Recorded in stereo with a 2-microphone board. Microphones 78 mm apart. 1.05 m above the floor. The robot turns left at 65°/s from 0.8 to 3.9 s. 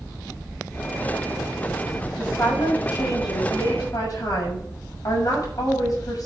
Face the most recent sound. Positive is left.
turn(degrees=50)